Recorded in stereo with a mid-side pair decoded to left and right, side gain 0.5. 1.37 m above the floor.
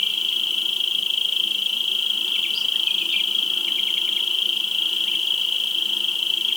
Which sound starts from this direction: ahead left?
An insect, at 0.0 s.